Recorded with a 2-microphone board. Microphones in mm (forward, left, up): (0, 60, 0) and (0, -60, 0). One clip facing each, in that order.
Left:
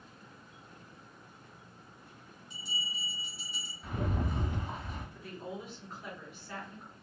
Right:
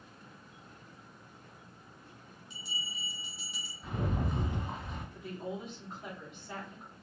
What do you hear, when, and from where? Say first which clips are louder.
2.5 s a bell: left 2 dB; 50° left (ahead or behind), 0.9 m
3.8 s a rattle: even; centre (ahead or behind), 1.1 m
5.2 s a woman speaking: right 4 dB; 25° right (ahead or behind), 1.0 m